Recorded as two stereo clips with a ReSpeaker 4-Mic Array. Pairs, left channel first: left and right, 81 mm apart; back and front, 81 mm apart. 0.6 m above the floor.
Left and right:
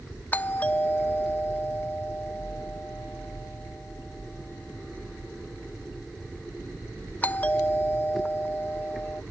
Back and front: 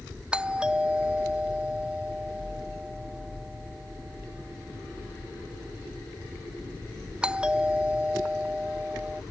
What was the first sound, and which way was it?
A doorbell, 60° left.